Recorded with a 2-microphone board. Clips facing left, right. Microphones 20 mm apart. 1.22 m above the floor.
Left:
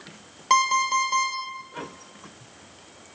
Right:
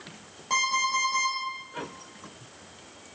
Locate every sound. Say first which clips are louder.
0.5 s an alarm clock: left 5 dB; 60° left (ahead or behind), 1.2 m